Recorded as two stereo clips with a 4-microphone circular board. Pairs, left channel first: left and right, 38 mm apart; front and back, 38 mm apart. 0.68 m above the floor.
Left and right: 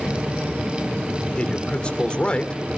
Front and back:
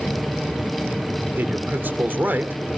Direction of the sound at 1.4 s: 150° left.